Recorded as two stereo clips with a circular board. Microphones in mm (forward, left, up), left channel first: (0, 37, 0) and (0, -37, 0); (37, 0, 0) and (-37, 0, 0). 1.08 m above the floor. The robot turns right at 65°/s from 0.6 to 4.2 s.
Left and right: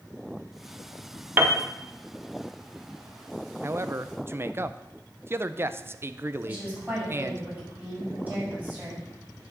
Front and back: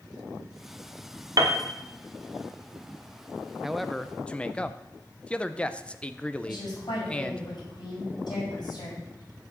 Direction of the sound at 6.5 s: 20° right.